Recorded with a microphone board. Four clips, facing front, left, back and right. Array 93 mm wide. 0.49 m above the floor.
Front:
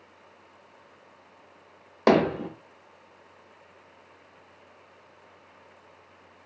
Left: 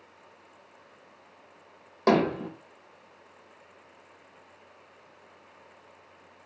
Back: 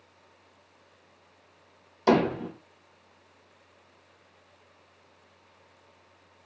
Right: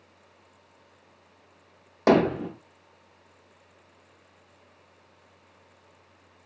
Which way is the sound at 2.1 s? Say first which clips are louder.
Right 3 dB, front 2 dB; 10° right.